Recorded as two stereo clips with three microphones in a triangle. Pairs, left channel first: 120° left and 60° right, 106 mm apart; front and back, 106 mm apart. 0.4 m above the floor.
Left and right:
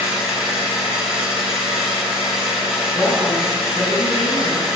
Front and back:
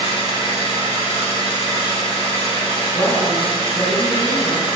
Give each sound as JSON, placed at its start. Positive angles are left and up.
{"t": 0.0, "sound": "an engine running", "azimuth_deg": 25, "distance_m": 1.6}
{"t": 2.9, "sound": "a woman speaking", "azimuth_deg": 30, "distance_m": 1.9}